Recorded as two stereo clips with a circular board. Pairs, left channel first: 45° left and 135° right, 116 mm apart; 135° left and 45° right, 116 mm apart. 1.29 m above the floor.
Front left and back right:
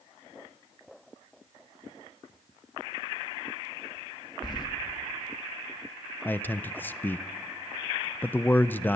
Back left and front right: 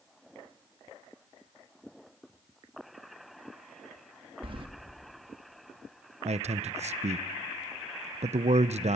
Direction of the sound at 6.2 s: 30° right.